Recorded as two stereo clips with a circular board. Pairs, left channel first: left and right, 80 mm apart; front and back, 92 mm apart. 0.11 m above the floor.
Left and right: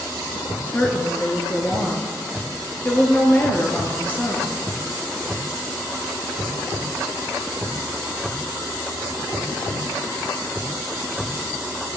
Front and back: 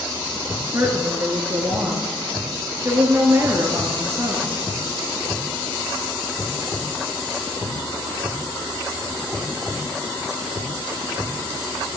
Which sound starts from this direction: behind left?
A woman speaking, at 0.6 s.